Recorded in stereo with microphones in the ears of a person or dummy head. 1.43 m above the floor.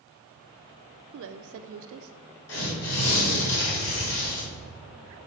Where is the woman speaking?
60° right (ahead or behind), 0.6 m.